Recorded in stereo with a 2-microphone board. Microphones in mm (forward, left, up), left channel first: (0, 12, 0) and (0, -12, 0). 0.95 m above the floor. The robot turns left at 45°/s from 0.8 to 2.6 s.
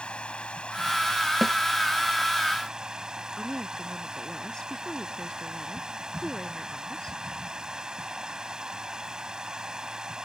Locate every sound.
0.0 s running water: 50° left; by 10.3 s 30° right
1.4 s a snare drum: 5° left (ahead or behind); by 1.6 s centre (ahead or behind)
3.4 s a woman speaking: 30° left (ahead or behind)